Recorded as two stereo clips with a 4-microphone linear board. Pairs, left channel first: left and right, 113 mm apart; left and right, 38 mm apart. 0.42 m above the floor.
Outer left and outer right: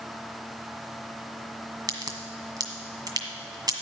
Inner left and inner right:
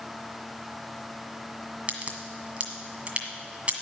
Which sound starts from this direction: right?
A crack, at 1.9 s.